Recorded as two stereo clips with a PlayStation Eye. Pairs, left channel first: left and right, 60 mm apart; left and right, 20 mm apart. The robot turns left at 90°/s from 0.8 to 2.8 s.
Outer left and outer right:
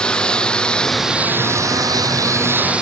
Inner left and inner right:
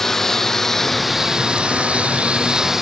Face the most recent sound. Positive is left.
turn(degrees=-15)  # may be behind; listen again after turning